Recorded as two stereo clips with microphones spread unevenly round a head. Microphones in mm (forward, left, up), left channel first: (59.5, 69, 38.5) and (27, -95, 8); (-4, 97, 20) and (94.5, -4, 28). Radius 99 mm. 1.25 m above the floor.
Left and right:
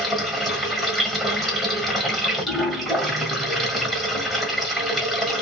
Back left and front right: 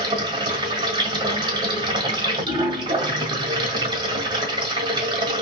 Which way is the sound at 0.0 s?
Straight ahead.